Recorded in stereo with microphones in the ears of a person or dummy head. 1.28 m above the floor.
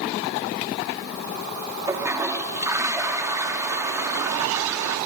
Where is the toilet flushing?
15° right (ahead or behind), 1.4 m.